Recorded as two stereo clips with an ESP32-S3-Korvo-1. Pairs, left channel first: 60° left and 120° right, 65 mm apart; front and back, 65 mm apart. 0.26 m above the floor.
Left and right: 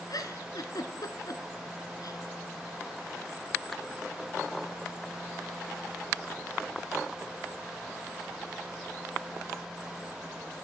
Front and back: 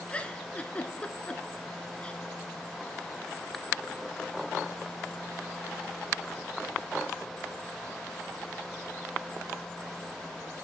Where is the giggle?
70° left, 0.6 m.